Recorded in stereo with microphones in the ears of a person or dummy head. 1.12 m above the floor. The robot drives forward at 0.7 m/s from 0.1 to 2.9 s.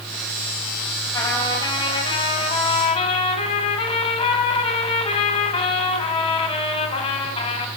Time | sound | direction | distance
1.1 | a trumpet | 20° left (ahead or behind) | 3.5 m